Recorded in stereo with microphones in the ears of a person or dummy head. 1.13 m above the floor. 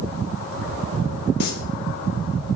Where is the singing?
55° left (ahead or behind), 3.5 m.